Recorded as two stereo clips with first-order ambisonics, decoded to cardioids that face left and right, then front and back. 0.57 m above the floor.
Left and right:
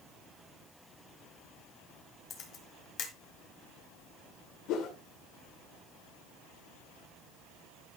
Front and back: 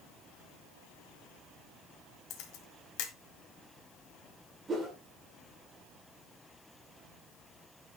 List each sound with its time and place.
2.3 s a camera shutter: 35° left, 1.7 m
4.7 s a whoosh: 115° left, 2 m